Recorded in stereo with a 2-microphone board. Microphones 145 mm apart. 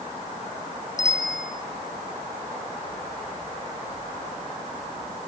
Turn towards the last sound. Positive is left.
turn(degrees=55)  # may be behind; listen again after turning